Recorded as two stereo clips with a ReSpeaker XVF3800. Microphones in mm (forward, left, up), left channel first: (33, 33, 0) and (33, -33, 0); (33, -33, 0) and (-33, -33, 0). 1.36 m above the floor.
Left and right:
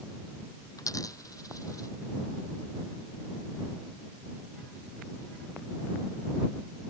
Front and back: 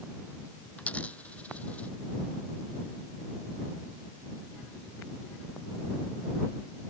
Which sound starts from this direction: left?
A dropped coin, at 0.8 s.